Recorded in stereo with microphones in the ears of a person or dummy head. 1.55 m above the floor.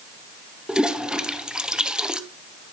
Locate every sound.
0.7 s a toilet flushing: 5° right (ahead or behind), 0.7 m